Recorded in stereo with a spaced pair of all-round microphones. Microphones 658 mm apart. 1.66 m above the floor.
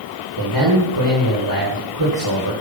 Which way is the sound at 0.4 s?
30° right (ahead or behind).